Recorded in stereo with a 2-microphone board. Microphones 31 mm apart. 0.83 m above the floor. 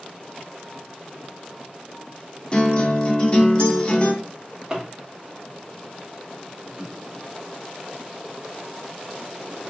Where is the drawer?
15° right (ahead or behind), 1.3 m.